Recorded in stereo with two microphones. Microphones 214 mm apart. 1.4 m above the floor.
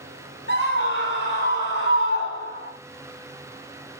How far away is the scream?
About 5.5 m.